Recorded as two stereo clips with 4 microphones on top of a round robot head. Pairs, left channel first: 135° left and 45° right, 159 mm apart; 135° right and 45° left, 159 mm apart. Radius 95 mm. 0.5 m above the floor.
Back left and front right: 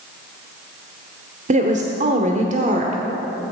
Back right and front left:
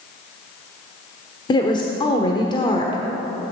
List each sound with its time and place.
1.5 s a woman speaking: 75° right, 1.3 m